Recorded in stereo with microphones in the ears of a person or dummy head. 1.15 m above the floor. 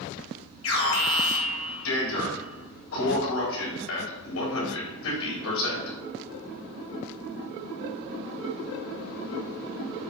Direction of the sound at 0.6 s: 70° left (ahead or behind).